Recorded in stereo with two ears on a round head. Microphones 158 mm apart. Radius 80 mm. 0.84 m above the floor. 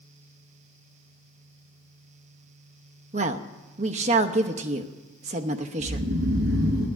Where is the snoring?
65° right (ahead or behind), 3.5 m.